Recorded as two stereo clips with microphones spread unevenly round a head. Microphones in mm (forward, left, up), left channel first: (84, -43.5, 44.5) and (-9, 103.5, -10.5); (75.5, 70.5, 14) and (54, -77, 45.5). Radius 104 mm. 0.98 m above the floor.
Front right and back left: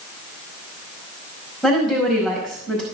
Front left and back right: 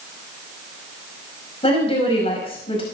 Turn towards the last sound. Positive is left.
turn(degrees=30)